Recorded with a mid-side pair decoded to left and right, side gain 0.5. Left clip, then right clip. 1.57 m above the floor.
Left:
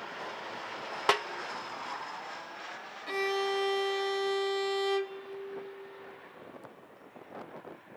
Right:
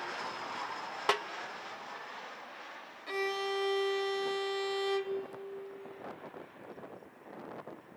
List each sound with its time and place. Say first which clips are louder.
1.1 s a snare drum: left 4 dB; 25° left, 0.6 m
3.1 s a violin: left 3 dB; 20° left, 1.4 m